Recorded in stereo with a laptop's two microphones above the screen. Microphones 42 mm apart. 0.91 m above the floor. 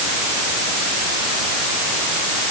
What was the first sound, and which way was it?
Only background noise.